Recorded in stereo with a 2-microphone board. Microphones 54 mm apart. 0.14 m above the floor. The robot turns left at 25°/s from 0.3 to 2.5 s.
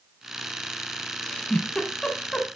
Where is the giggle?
20° left (ahead or behind), 1.3 m; by 2.5 s 15° left (ahead or behind), 1.3 m.